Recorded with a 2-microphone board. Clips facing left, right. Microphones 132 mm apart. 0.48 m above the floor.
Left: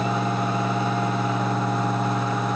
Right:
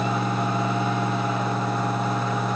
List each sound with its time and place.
Only background noise.